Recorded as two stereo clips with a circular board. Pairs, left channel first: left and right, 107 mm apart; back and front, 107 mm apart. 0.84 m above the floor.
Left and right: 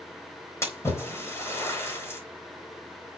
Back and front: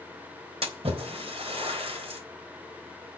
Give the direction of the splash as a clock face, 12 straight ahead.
11 o'clock.